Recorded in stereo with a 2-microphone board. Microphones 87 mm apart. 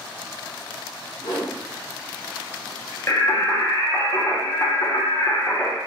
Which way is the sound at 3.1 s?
35° left (ahead or behind).